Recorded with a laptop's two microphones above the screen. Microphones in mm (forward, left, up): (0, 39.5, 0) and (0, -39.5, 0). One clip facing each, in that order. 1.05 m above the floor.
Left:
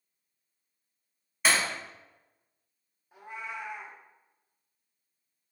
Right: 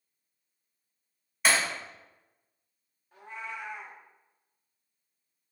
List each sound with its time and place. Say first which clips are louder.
1.4 s breaking glass: even; centre (ahead or behind), 1.0 m
3.1 s a cat meowing: left 1 dB; 10° left (ahead or behind), 0.5 m